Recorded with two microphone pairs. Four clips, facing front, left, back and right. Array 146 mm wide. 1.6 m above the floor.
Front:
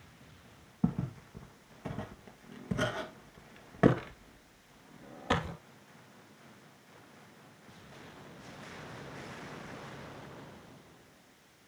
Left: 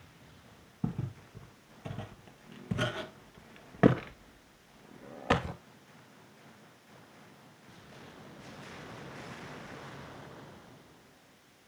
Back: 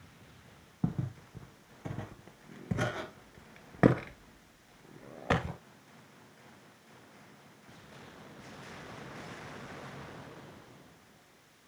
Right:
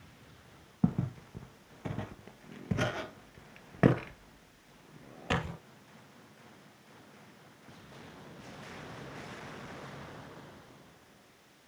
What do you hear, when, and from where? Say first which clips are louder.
0.8 s footsteps: right 6 dB, front 3 dB; 85° right, 2.0 m; by 5.6 s 125° left, 1.9 m